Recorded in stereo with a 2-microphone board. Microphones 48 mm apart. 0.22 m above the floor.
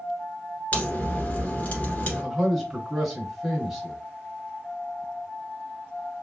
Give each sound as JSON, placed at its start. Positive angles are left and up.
{"t": 0.7, "sound": "a crack", "side_deg": 35, "distance_m": 1.4}
{"t": 2.2, "sound": "a man speaking", "side_deg": 0, "distance_m": 1.7}